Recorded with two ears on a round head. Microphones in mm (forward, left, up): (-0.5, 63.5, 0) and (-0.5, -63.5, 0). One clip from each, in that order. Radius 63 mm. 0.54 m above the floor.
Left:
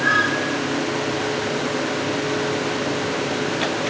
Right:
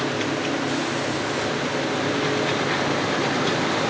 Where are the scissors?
I don't hear scissors.